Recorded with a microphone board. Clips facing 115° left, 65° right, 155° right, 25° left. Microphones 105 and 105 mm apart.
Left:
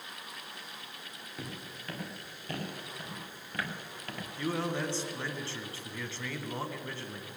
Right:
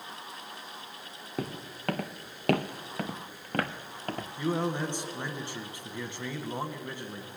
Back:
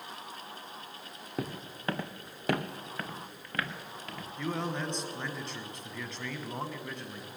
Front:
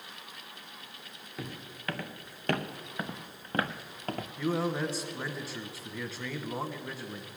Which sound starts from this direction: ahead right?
A man speaking, at 4.4 s.